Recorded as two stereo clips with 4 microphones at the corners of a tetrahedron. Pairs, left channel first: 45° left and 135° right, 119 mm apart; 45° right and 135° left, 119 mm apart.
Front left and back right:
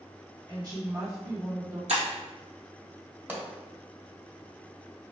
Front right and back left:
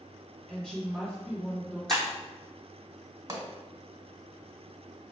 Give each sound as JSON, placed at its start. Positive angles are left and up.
{"t": 0.5, "sound": "a woman speaking", "azimuth_deg": -120, "distance_m": 1.7}
{"t": 1.9, "sound": "breaking glass", "azimuth_deg": -130, "distance_m": 1.6}
{"t": 3.3, "sound": "a pop", "azimuth_deg": 165, "distance_m": 1.6}